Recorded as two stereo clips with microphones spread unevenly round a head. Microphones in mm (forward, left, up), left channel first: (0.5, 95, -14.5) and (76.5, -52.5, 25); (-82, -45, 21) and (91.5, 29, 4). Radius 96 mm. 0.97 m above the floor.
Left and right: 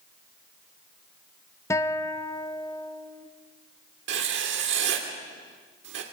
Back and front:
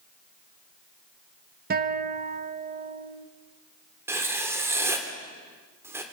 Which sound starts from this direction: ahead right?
Writing, at 4.1 s.